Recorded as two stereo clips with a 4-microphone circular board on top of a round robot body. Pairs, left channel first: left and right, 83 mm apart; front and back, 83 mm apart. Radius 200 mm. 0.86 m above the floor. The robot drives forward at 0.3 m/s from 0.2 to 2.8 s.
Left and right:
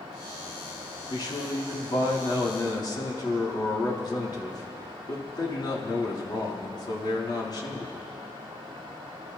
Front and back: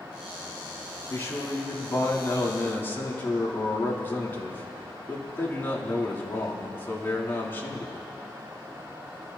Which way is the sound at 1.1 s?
55° left.